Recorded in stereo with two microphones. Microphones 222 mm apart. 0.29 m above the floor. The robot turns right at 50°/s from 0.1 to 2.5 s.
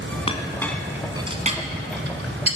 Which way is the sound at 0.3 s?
25° left (ahead or behind).